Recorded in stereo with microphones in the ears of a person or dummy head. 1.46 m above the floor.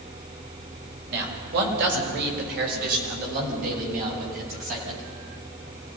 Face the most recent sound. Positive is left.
turn(degrees=-45)  # may be behind; listen again after turning